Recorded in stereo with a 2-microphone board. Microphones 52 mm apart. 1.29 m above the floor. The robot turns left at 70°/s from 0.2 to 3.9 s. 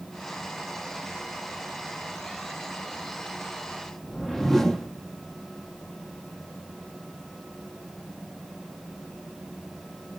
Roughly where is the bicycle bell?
I don't hear a bicycle bell.